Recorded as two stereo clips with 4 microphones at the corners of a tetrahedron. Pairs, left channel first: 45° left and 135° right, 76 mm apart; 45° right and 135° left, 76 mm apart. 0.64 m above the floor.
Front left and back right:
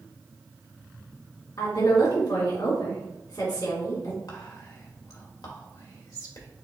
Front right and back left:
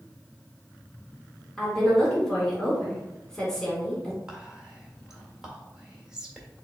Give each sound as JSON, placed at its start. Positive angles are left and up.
{"t": 1.6, "sound": "a woman speaking", "azimuth_deg": 35, "distance_m": 1.9}
{"t": 4.3, "sound": "whispering", "azimuth_deg": 55, "distance_m": 1.6}